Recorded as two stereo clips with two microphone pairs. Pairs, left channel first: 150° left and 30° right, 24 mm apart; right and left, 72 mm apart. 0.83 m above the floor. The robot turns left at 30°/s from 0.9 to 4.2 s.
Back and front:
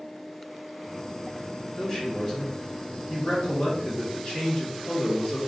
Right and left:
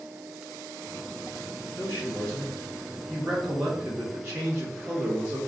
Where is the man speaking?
130° right, 1.6 m; by 5.4 s 155° left, 1.6 m.